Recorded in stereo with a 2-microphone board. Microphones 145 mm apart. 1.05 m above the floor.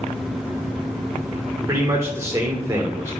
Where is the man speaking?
20° right (ahead or behind), 3 m.